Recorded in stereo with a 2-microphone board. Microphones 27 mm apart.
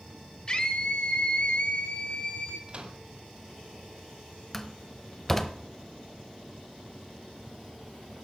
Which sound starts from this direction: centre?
A door slam, at 4.5 s.